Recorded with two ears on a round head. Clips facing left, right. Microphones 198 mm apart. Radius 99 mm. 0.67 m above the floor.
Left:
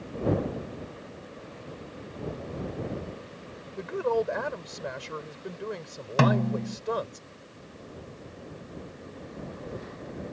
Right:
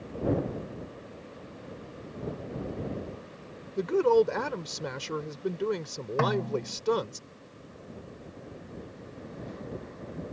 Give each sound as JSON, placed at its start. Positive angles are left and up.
{"t": 3.8, "sound": "a woman speaking", "side_deg": -60}
{"t": 6.2, "sound": "a snare drum", "side_deg": 50}